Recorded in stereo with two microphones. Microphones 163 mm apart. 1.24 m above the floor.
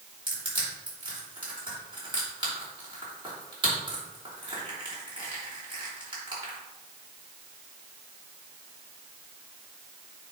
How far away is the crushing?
About 3 m.